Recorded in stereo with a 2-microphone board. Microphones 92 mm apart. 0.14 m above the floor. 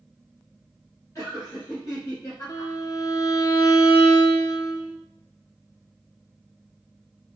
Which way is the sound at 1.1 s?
35° left (ahead or behind).